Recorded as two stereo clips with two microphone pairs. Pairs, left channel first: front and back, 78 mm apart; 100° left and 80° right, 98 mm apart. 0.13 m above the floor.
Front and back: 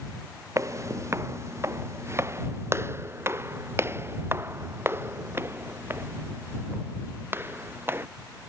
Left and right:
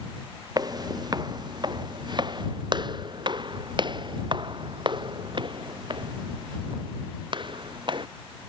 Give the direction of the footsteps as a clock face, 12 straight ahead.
4 o'clock.